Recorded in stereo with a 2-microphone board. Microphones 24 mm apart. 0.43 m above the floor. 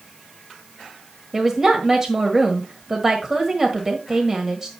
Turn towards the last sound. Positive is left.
turn(degrees=-20)  # may be behind; listen again after turning